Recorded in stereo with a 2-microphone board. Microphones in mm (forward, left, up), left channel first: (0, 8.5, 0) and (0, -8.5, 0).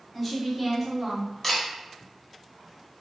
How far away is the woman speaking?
About 1.1 m.